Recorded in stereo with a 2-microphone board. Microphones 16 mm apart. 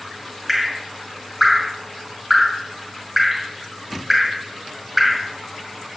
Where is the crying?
I don't hear crying.